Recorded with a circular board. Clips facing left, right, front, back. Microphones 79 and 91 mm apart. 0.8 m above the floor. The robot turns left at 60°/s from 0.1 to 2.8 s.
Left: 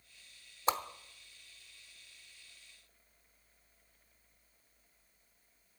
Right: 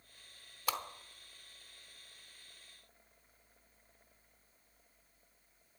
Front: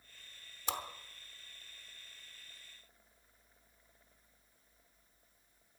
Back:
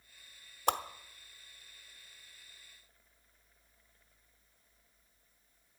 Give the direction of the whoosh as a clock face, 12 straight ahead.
7 o'clock.